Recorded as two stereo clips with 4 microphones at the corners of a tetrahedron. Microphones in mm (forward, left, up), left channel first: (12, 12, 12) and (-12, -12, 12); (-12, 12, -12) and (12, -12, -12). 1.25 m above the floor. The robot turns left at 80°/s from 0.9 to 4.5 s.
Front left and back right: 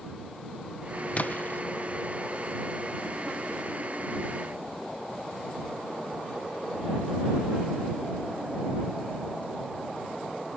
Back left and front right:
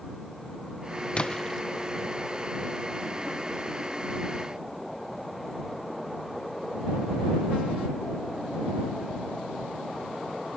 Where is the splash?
85° left; by 1.6 s 45° left.